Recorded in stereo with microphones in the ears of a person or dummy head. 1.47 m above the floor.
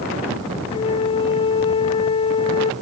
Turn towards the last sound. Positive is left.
turn(degrees=30)  # may be behind; listen again after turning